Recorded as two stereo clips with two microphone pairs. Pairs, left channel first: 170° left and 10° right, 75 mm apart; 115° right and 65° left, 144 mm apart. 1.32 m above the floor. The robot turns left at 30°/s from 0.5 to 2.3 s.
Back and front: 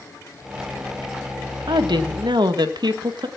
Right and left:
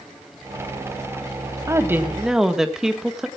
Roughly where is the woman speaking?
Ahead.